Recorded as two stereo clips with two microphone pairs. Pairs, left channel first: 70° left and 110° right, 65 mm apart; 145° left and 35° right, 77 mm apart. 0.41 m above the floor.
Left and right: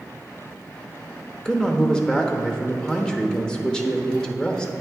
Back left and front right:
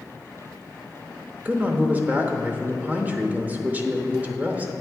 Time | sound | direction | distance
1.4 | a man speaking | 5° left | 0.9 m